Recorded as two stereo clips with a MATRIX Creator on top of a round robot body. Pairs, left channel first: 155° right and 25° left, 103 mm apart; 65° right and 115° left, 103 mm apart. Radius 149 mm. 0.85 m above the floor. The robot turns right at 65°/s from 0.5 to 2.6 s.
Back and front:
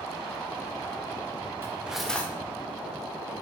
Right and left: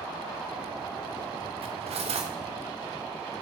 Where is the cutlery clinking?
85° left, 0.8 m; by 2.3 s 130° left, 0.8 m.